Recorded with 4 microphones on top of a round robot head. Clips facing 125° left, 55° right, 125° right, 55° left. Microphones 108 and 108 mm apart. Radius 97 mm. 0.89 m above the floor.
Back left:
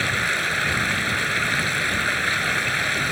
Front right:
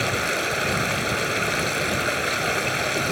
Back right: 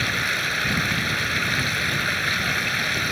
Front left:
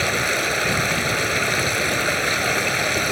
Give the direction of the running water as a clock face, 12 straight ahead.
12 o'clock.